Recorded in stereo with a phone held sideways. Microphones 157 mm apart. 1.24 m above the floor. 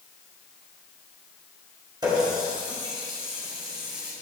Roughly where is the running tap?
Right.